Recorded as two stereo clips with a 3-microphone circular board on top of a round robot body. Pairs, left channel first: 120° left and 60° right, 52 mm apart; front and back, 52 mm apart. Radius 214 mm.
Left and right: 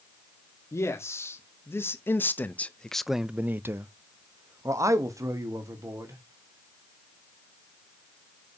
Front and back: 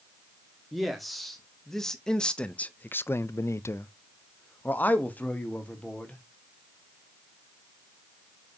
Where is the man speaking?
90° left, 2 m; by 6.2 s 65° right, 2.5 m.